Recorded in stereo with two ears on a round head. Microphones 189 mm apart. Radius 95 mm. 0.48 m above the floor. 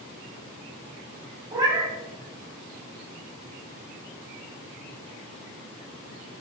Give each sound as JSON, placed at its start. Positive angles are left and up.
{"t": 1.5, "sound": "a cat meowing", "side_deg": -20, "distance_m": 0.8}